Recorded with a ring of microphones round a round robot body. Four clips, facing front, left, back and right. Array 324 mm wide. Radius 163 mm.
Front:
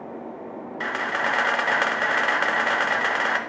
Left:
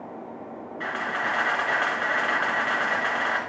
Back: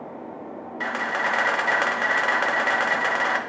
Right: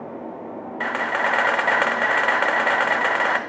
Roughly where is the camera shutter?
Right.